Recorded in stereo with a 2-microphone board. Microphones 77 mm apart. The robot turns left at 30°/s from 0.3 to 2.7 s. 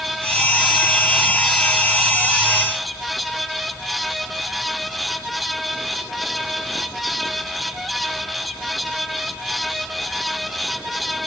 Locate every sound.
Only background noise.